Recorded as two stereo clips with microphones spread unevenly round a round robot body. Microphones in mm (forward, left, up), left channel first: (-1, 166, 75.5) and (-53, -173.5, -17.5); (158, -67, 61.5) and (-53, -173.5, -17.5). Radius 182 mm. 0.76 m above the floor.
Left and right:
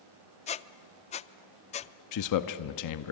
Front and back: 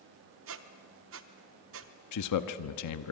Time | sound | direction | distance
0.5 | a squeak | 155° left | 0.5 m
2.1 | a man speaking | 35° left | 0.9 m